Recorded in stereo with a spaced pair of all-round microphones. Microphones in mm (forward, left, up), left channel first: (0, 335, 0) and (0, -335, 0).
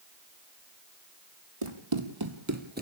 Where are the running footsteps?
50° right (ahead or behind), 2 m; by 2.8 s 10° right (ahead or behind), 1.6 m.